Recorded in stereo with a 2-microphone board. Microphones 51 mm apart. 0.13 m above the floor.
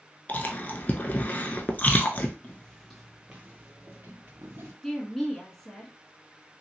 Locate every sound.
0.3 s chewing: 35° left (ahead or behind), 0.6 m
2.4 s footsteps: 30° left (ahead or behind), 0.6 m; by 4.7 s 55° right (ahead or behind), 1.2 m
4.8 s a woman speaking: 5° left (ahead or behind), 1.0 m